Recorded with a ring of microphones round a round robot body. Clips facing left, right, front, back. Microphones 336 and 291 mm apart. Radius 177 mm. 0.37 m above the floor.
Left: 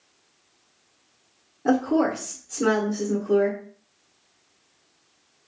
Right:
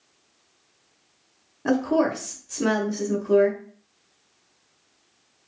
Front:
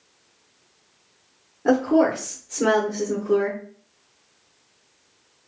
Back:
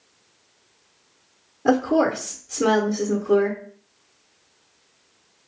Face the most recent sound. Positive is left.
turn(degrees=-115)